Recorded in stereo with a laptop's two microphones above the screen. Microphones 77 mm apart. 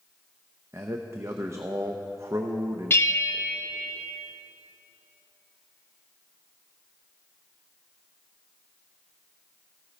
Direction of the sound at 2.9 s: 30° left (ahead or behind).